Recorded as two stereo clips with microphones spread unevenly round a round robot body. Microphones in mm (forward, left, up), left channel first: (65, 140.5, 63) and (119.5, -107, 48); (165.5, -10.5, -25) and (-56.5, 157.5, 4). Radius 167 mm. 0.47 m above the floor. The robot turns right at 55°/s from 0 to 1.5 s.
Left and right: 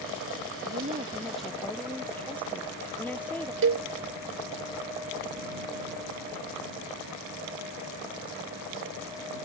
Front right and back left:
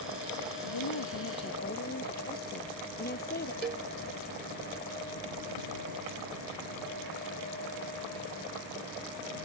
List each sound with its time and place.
0.6 s a woman speaking: 30° right; by 3.5 s 20° left
3.6 s a cowbell: 130° right